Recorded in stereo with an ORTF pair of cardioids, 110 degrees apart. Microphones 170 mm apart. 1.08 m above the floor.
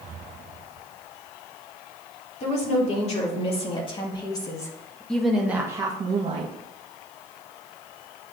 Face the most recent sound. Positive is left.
turn(degrees=-45)